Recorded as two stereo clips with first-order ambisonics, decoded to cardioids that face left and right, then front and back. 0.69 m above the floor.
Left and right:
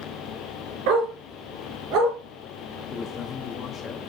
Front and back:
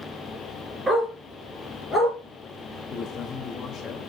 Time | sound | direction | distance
0.9 | a dog barking | 95° right | 2.5 m
2.9 | a man speaking | 35° left | 1.0 m